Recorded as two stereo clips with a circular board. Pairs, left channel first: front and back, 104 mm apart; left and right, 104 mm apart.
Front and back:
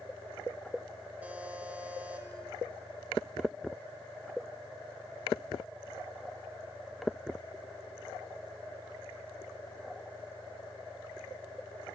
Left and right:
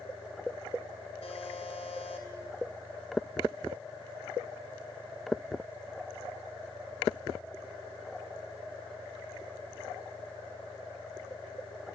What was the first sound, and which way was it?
A buzzer, 105° left.